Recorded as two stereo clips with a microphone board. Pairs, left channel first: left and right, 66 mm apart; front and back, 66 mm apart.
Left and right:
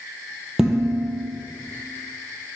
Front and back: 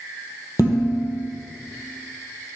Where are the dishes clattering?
5° right, 2.5 m.